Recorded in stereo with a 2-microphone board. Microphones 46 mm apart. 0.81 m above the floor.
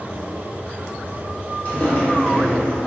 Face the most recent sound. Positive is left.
turn(degrees=-5)  # may be behind; listen again after turning